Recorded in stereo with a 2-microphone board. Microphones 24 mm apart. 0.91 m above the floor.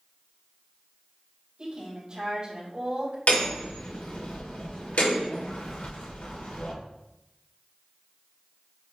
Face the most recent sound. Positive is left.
turn(degrees=75)  # may be behind; listen again after turning